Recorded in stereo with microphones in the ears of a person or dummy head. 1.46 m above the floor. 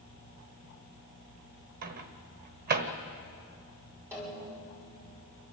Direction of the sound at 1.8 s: 55° right (ahead or behind).